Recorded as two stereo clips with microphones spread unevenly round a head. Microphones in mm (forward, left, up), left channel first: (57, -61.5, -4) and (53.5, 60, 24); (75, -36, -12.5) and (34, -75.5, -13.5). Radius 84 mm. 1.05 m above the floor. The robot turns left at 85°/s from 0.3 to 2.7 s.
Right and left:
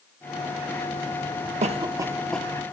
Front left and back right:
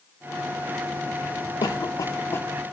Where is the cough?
60° left, 2.5 m; by 2.5 s 15° right, 2.5 m.